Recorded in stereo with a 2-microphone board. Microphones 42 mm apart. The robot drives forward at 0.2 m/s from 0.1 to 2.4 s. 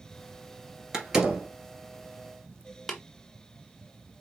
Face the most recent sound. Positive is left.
turn(degrees=0)  # may be behind; listen again after turning